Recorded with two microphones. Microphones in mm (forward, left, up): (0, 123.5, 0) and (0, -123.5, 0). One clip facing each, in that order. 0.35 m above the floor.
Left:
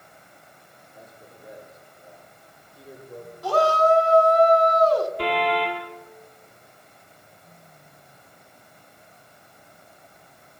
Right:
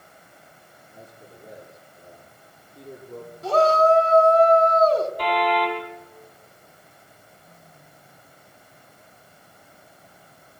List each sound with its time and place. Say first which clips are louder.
0.9 s a man speaking: right 2 dB; 50° right (ahead or behind), 9.5 m
3.4 s a shout: right 2 dB; 25° right (ahead or behind), 2.5 m
5.2 s a car horn: right 1 dB; 30° left (ahead or behind), 4 m